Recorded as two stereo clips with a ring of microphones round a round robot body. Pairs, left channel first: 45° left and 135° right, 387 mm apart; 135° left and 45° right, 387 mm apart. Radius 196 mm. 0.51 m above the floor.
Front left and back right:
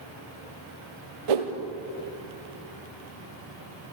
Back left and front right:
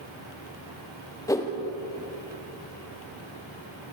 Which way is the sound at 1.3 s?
145° right.